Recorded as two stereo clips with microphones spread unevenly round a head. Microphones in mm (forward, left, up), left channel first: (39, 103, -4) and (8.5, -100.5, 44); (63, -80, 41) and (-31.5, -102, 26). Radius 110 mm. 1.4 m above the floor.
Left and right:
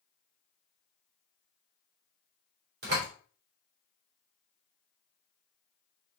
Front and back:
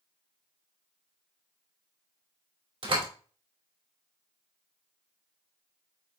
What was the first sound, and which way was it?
A door slam, 140° right.